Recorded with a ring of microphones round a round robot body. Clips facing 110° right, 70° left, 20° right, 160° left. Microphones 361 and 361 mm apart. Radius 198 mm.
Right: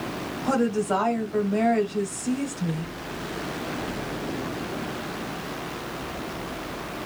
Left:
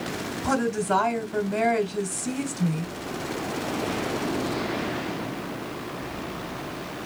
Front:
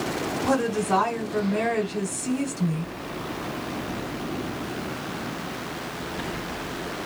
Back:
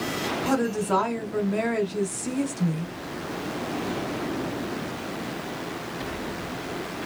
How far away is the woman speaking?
About 1.2 m.